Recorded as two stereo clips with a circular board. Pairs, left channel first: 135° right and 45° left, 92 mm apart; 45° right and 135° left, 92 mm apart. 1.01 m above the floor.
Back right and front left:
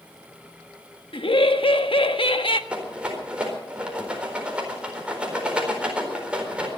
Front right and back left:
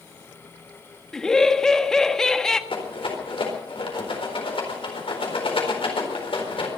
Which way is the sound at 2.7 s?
35° right.